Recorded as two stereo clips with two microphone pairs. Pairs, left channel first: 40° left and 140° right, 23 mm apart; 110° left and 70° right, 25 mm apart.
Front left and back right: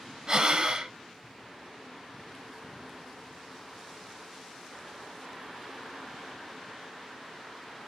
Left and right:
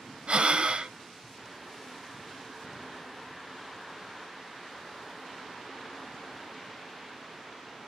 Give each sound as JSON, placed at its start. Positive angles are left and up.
{"t": 0.3, "sound": "breathing", "azimuth_deg": -90, "distance_m": 0.7}